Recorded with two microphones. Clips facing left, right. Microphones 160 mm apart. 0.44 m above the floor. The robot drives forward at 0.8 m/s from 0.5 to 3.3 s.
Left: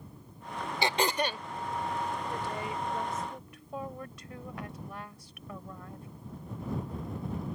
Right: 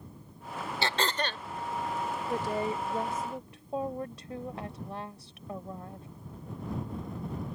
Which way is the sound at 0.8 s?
15° left (ahead or behind).